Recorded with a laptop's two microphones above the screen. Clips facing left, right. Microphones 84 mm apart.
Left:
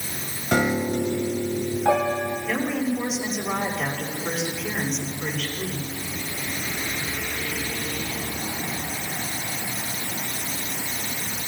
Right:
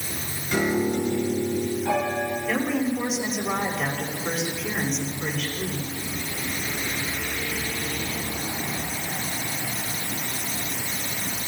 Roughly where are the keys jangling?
I don't hear keys jangling.